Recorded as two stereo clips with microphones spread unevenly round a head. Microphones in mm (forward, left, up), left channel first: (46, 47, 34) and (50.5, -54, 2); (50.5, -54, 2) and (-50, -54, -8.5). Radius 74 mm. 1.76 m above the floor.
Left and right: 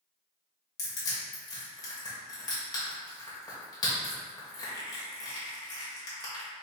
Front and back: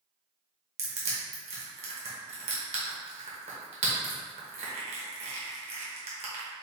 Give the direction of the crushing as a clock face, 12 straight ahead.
7 o'clock.